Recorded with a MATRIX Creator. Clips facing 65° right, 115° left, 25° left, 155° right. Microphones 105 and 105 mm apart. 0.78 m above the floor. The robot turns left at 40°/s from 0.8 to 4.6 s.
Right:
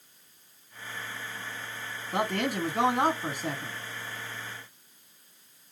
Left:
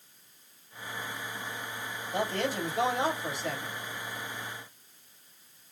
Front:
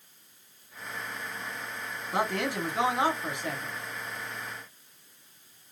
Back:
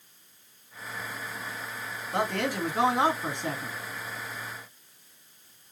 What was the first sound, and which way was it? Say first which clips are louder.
A man speaking: right 2 dB, back 1 dB; 50° right.